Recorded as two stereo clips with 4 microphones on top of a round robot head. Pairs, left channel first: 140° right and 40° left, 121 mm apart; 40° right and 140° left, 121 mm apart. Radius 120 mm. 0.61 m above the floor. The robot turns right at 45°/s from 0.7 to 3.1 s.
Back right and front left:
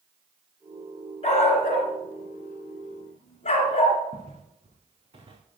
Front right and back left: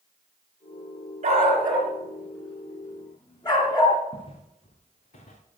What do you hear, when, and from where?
1.2 s a dog barking: straight behind, 2.5 m; by 4.0 s 100° right, 2.5 m
4.1 s footsteps: 5° left, 4 m; by 5.4 s 15° right, 3 m